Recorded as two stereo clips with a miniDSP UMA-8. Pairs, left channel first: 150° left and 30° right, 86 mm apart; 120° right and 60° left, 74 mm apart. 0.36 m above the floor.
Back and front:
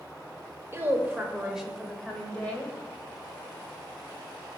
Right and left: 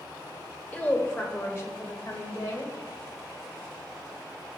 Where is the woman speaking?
65° right, 0.9 m; by 2.8 s 145° right, 1.2 m.